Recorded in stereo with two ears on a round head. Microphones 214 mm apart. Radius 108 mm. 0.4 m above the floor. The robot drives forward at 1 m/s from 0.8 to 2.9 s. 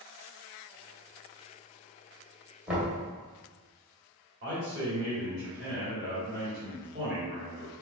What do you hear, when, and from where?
2.7 s knocking: 5° right (ahead or behind), 1.6 m
4.4 s a man speaking: 25° right (ahead or behind), 2.0 m